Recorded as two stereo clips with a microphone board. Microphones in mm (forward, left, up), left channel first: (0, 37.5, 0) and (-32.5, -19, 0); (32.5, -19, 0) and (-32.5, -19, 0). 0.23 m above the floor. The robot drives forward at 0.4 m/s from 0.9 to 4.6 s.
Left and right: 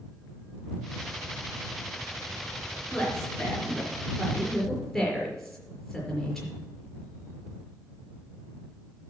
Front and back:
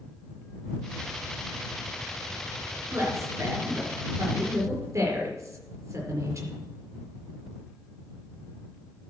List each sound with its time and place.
2.9 s a woman speaking: 140° left, 4.5 m; by 6.5 s 145° left, 5 m